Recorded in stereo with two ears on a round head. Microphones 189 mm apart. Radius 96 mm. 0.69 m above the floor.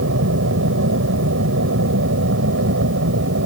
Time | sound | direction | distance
0.0 | an aircraft | 65° right (ahead or behind) | ?